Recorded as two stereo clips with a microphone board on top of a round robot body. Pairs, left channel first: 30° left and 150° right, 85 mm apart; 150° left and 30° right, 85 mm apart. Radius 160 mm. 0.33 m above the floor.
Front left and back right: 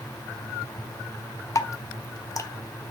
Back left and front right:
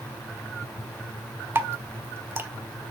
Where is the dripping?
20° left, 1.4 m.